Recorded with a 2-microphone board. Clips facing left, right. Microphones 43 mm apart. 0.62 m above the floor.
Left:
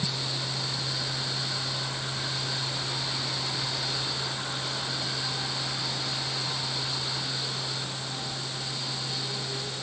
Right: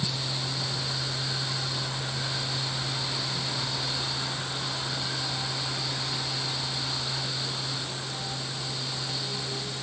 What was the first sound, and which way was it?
Only background noise.